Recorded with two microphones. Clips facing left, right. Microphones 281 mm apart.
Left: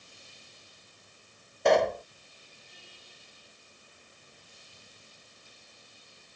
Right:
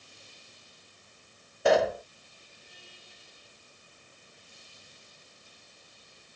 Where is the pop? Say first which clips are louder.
Even; 5° right (ahead or behind).